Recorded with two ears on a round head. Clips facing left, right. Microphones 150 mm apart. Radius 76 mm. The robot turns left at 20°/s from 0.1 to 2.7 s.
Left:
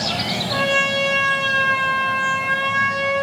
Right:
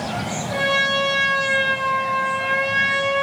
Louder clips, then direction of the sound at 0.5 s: Left 1 dB; 140° left.